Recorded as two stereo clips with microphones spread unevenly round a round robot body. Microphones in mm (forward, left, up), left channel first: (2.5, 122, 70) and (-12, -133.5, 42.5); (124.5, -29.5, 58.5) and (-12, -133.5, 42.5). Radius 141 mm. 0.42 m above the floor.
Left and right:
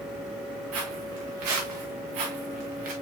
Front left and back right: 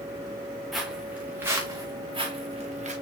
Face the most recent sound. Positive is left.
turn(degrees=-90)